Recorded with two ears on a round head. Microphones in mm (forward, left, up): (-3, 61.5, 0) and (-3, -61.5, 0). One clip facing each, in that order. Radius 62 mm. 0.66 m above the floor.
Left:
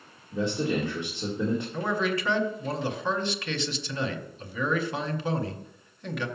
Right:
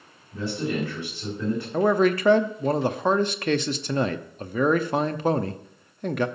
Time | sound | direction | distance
0.3 | a man speaking | 20° left (ahead or behind) | 2.0 m
1.7 | a man speaking | 40° right (ahead or behind) | 0.7 m